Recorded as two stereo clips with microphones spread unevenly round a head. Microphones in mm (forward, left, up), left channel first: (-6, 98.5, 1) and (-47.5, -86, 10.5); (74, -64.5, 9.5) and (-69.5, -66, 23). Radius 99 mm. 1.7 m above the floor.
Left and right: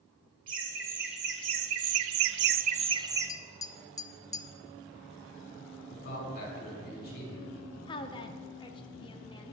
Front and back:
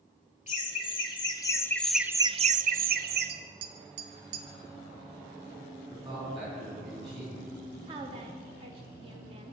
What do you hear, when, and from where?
0.5 s laughter: 50° right, 1.6 m; by 3.3 s straight behind, 1.0 m
3.3 s tapping: 150° left, 0.6 m
5.9 s a man speaking: 115° left, 4.5 m
7.9 s a woman speaking: 140° left, 0.9 m